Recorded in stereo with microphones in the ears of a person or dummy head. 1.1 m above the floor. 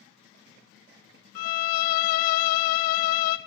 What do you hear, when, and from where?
1.4 s a violin: 55° left (ahead or behind), 0.6 m